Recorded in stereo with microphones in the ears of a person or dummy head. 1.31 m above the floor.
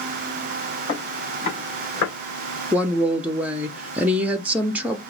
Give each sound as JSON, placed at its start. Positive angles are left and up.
{"t": 0.9, "sound": "footsteps", "side_deg": 45, "distance_m": 3.5}
{"t": 2.7, "sound": "a woman speaking", "side_deg": -10, "distance_m": 0.5}